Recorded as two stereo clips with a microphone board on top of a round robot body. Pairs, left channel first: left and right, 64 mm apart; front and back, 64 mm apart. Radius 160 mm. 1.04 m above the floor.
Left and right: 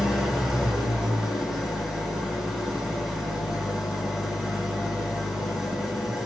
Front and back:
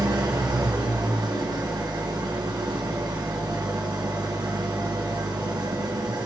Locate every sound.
0.0 s an engine running: 175° right, 5 m